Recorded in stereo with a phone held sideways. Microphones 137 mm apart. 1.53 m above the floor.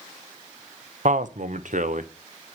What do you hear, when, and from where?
1.1 s a man speaking: 65° right (ahead or behind), 0.9 m